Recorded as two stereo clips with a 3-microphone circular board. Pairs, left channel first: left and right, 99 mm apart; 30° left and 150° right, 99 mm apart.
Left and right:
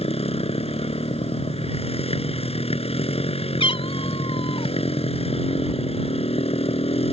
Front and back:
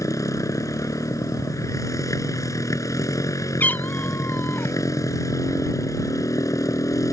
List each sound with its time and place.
0.0 s a motorcycle: 85° left
3.6 s a cat meowing: 100° left